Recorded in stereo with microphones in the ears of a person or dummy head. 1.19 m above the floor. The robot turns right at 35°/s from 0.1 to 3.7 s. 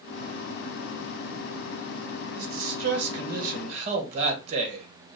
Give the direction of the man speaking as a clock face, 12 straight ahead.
3 o'clock.